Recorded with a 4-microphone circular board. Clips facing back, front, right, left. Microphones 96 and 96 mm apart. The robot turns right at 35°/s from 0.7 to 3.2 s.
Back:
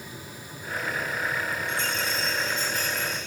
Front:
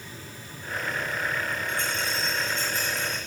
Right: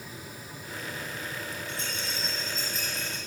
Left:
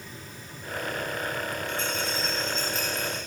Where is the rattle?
40° right, 4.5 m; by 3.2 s 15° left, 4.5 m.